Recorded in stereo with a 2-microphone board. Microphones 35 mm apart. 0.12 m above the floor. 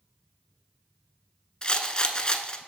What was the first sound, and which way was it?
A rattle, 25° left (ahead or behind).